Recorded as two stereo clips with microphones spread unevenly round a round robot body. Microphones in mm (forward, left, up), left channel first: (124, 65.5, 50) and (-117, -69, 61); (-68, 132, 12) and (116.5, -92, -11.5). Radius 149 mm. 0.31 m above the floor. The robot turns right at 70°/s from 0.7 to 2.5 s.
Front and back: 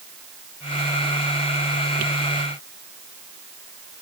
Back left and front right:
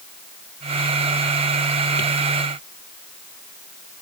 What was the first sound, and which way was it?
Only background noise.